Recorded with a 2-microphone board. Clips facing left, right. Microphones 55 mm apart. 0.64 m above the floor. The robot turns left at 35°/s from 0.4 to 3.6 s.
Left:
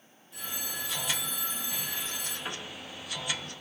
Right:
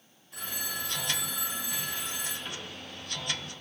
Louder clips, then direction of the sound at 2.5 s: Left 2 dB; 40° left (ahead or behind).